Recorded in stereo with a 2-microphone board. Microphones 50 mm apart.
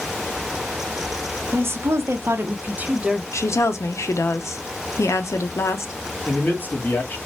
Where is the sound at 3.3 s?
80° left, 0.6 m.